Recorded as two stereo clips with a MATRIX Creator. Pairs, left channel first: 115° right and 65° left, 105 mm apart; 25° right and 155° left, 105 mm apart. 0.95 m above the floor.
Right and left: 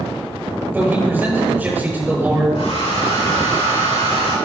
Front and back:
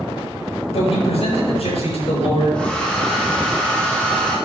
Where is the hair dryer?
100° right, 3 m.